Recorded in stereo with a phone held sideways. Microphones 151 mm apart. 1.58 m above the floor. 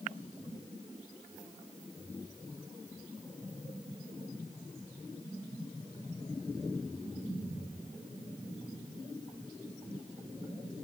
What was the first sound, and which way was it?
Only background noise.